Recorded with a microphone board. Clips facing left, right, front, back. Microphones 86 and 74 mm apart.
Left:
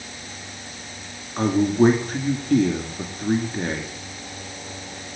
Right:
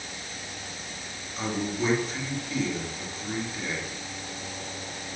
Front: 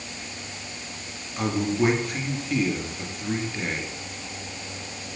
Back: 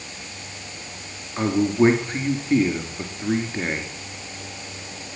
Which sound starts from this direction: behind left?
A man speaking, at 1.4 s.